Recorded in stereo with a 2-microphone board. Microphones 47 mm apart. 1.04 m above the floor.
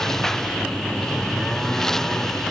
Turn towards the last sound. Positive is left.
turn(degrees=10)  # may be behind; listen again after turning